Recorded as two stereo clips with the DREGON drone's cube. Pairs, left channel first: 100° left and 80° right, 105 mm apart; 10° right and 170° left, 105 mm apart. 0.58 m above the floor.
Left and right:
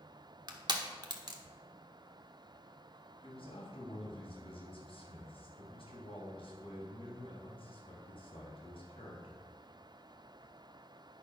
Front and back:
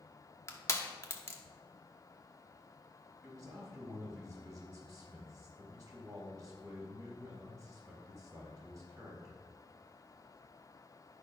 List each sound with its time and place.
0.5 s crushing: 65° right, 1.3 m
3.2 s a man speaking: 115° left, 3.5 m